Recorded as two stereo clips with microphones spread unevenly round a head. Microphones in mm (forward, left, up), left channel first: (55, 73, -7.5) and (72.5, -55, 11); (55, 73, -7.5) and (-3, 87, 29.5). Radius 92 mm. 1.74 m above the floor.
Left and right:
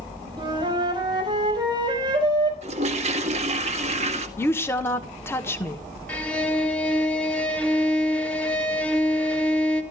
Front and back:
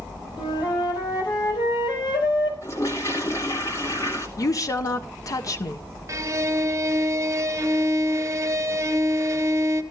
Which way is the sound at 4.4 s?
25° left.